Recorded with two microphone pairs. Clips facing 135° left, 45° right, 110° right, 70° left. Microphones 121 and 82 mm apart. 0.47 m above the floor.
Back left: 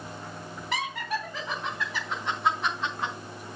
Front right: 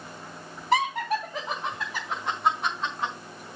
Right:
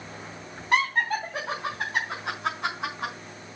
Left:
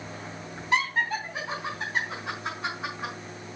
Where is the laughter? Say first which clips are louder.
Front right 7 dB, right 2 dB; 95° right, 2.5 m; by 3.1 s 130° right, 4 m.